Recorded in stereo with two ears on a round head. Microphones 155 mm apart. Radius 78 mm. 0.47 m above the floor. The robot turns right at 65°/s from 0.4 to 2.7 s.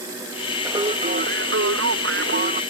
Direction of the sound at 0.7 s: 165° right.